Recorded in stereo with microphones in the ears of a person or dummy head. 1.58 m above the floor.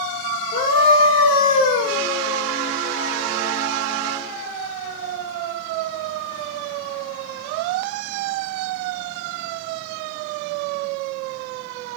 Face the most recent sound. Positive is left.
turn(degrees=25)  # may be behind; listen again after turning